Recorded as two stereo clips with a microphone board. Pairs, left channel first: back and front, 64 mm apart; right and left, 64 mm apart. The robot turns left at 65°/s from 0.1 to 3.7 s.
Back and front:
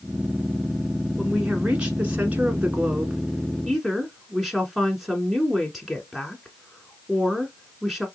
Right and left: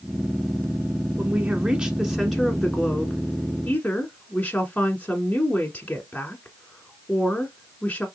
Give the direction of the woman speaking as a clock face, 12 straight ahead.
9 o'clock.